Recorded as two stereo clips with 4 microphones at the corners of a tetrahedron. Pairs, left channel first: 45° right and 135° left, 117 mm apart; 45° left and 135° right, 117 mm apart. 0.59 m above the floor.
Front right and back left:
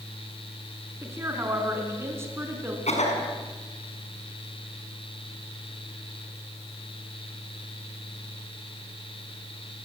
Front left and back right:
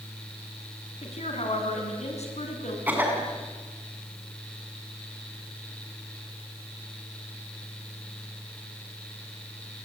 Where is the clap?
I don't hear a clap.